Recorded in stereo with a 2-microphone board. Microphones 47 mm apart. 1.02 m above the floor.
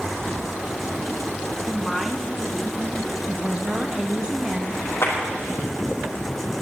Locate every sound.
1.7 s a woman speaking: centre (ahead or behind), 1.1 m; by 3.2 s 20° right (ahead or behind), 2 m
3.3 s a woman speaking: 25° right (ahead or behind), 1.5 m
5.0 s a clap: 80° left, 4 m